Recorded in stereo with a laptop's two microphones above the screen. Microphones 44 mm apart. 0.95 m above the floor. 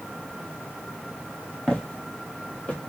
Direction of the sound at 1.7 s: 10° left (ahead or behind).